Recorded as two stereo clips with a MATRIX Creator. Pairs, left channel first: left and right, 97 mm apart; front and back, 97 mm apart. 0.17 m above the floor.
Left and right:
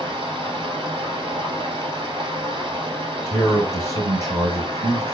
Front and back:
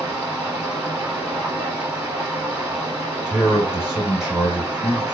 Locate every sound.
0.0 s running water: 115° right, 1.2 m
3.2 s a man speaking: 105° right, 1.9 m